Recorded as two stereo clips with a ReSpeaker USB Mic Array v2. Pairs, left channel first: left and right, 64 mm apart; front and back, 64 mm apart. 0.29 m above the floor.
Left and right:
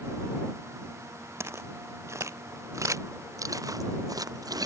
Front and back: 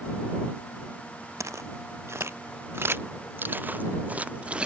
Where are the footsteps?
140° right; by 4.7 s 105° right.